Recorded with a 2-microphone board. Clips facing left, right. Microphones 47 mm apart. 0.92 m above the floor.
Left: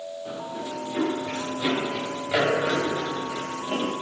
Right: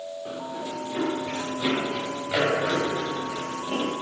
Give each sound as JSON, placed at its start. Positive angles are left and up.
{"t": 0.2, "sound": "running footsteps", "side_deg": -15, "distance_m": 7.5}